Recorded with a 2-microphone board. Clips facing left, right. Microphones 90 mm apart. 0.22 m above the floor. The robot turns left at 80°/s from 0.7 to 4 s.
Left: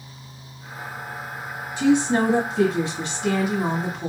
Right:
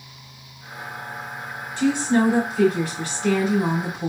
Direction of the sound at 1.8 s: 15° left (ahead or behind).